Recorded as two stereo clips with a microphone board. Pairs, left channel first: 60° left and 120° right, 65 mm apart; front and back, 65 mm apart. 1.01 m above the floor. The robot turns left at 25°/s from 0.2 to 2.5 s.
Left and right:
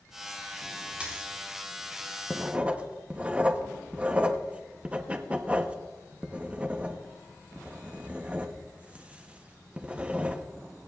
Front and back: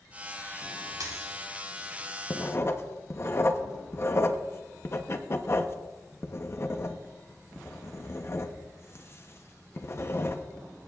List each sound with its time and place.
1.0 s a dropped coin: 170° left, 5 m; by 1.4 s 160° left, 5 m
2.3 s writing: 45° right, 0.8 m; by 10.4 s 50° right, 0.8 m